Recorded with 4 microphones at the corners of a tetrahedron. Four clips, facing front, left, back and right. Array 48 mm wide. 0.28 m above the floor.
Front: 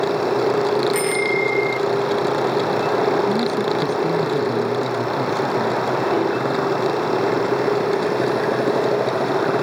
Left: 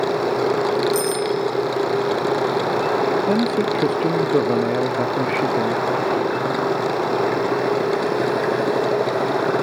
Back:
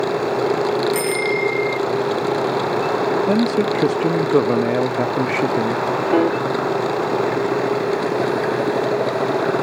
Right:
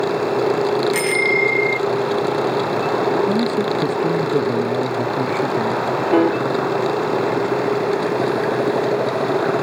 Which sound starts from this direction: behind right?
A piano, at 6.1 s.